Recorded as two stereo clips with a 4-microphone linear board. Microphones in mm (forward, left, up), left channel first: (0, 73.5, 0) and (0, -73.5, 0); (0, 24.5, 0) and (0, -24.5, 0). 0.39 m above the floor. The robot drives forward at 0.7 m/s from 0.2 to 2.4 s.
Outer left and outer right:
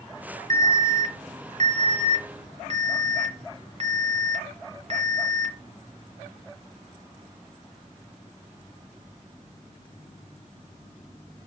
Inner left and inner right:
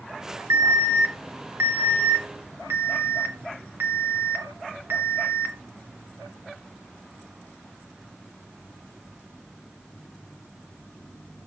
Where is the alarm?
75° right (ahead or behind), 1.8 m; by 5.5 s 50° right (ahead or behind), 2 m.